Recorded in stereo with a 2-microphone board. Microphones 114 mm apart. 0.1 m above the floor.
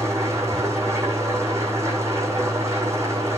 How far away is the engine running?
About 2.5 m.